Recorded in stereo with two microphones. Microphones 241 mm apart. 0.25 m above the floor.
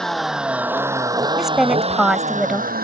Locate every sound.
0.0 s a vehicle: centre (ahead or behind); by 2.9 s 40° right (ahead or behind)
1.4 s a woman speaking: centre (ahead or behind)